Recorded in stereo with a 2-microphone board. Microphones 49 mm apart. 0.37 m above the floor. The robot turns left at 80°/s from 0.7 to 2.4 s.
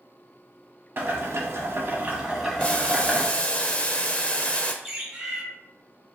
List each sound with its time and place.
1.0 s boiling: 55° right, 1.1 m; by 3.3 s 170° right, 1.1 m
2.6 s boiling: 25° left (ahead or behind), 0.5 m
4.8 s a bird: 5° right (ahead or behind), 1.9 m